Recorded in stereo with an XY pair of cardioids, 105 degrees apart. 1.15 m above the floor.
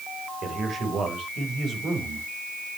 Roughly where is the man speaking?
Ahead right.